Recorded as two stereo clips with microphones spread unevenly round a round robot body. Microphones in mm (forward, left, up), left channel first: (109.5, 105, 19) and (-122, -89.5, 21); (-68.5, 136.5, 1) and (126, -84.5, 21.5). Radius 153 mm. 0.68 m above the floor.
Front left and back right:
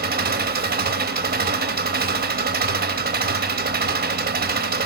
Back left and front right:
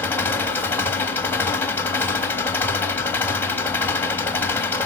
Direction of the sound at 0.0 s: 160° right.